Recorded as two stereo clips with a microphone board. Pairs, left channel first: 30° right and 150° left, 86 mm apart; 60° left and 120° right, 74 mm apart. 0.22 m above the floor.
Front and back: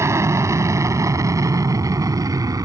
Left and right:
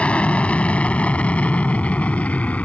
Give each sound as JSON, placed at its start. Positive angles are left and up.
{"t": 0.0, "sound": "an aircraft", "azimuth_deg": 125}